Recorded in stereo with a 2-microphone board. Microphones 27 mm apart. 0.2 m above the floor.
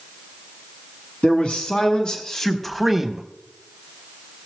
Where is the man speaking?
50° left (ahead or behind), 1.7 m; by 3.2 s 20° right (ahead or behind), 1.1 m.